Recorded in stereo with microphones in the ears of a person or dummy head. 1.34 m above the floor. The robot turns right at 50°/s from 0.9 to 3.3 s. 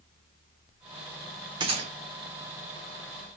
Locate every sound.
1.6 s a gunshot: 20° right (ahead or behind), 0.7 m; by 1.9 s 35° right (ahead or behind), 0.7 m